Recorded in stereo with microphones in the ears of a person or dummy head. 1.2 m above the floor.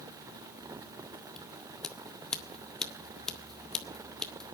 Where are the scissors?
10° left (ahead or behind), 1.6 m.